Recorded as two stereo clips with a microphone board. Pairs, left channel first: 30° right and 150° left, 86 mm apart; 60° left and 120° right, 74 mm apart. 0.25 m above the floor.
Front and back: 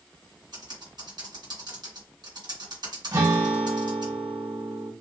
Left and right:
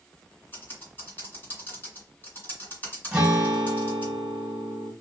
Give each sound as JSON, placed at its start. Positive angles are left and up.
{"t": 0.5, "sound": "typing on a keyboard", "azimuth_deg": 120, "distance_m": 1.9}
{"t": 3.1, "sound": "a guitar", "azimuth_deg": 160, "distance_m": 1.7}